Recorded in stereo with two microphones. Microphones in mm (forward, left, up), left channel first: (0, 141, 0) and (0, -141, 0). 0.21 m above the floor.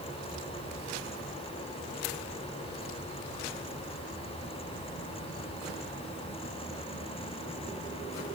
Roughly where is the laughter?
No laughter in this recording.